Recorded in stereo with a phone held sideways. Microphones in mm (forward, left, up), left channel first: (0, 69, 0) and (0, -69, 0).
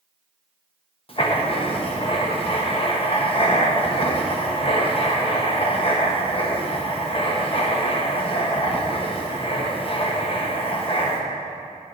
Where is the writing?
40° left (ahead or behind), 1.1 m.